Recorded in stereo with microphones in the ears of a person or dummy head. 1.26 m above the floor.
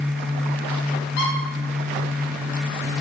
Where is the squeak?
60° left (ahead or behind), 3.5 m.